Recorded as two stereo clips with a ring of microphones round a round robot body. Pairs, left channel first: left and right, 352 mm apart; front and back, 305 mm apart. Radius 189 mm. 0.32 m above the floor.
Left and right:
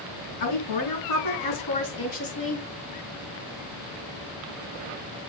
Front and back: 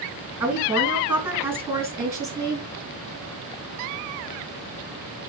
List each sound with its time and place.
0.4 s a woman speaking: 95° left, 4.5 m; by 2.7 s 105° left, 3 m